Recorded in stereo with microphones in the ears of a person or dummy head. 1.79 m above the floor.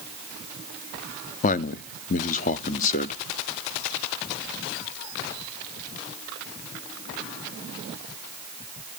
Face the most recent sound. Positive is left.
turn(degrees=45)  # may be behind; listen again after turning